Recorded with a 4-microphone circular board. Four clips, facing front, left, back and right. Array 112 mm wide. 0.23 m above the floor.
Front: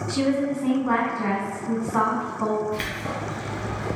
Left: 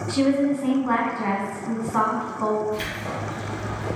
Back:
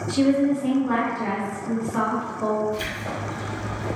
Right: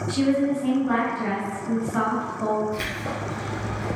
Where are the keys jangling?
15° right, 1.7 m.